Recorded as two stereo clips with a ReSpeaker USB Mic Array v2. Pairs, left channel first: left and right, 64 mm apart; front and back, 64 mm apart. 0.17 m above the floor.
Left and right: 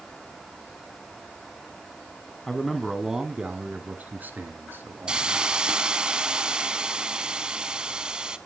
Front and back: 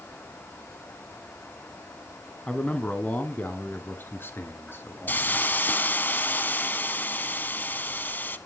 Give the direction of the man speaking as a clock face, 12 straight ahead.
11 o'clock.